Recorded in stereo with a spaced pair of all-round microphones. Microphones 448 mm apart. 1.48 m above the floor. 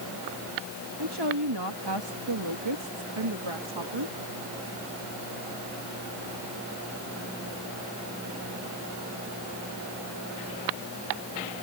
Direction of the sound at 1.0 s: 60° right (ahead or behind).